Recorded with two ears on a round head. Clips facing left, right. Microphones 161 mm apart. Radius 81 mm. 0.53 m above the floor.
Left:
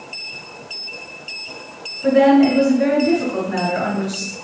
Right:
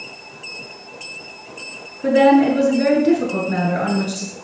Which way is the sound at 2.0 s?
35° right (ahead or behind).